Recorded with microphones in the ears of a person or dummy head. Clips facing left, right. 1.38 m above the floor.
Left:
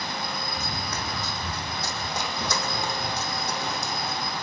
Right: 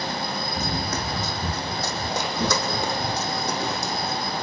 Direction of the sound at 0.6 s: 35° right (ahead or behind).